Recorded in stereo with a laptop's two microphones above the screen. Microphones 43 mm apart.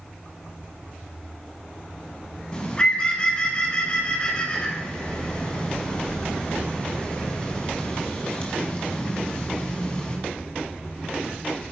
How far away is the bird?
About 1.3 m.